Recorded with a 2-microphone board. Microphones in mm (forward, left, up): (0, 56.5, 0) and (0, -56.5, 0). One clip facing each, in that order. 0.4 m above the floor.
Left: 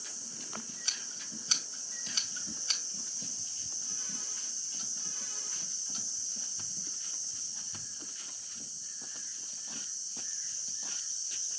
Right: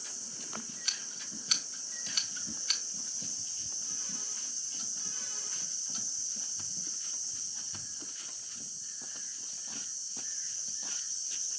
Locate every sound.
0.8 s scissors: 30° left (ahead or behind), 2.5 m